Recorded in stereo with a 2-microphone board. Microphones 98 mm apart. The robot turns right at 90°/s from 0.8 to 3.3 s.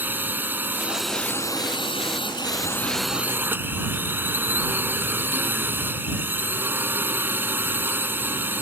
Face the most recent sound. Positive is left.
turn(degrees=-155)